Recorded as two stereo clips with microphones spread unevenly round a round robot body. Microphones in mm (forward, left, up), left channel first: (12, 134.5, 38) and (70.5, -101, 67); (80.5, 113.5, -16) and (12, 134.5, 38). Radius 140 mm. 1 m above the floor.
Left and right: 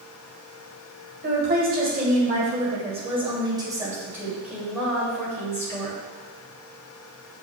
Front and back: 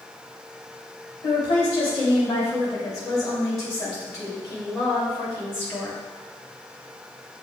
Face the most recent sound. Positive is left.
turn(degrees=30)